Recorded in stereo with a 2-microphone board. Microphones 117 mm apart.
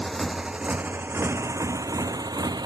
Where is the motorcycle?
5° left (ahead or behind); by 2.7 s 35° right (ahead or behind).